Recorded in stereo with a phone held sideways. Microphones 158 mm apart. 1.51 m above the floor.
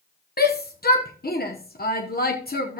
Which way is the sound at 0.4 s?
80° left.